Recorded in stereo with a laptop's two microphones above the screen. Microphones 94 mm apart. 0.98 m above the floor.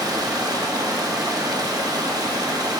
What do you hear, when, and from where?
0.0 s running water: 40° right (ahead or behind), 0.7 m